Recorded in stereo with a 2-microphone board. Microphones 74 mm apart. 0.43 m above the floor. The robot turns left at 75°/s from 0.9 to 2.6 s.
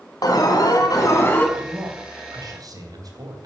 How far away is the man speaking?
About 3 m.